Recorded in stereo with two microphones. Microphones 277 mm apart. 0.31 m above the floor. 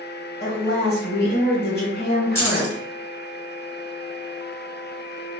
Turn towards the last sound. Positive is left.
turn(degrees=10)  # may be behind; listen again after turning